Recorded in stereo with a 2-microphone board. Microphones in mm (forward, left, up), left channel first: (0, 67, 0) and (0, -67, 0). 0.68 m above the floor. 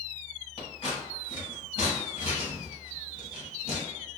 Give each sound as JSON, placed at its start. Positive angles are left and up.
{"t": 0.6, "sound": "scissors", "side_deg": 40, "distance_m": 1.2}